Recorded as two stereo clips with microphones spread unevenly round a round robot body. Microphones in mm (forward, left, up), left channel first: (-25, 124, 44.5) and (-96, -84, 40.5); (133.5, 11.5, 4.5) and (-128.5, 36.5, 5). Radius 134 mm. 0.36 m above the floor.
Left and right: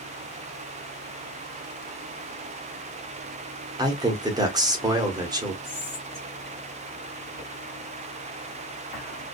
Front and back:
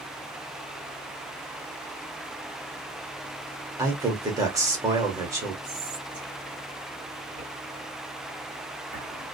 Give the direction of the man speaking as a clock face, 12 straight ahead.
4 o'clock.